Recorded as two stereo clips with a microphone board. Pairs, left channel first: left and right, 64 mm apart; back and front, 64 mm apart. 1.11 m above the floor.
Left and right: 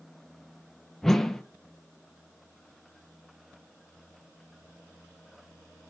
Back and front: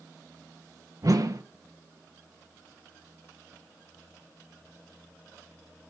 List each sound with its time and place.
1.0 s a whoosh: 5° left, 0.6 m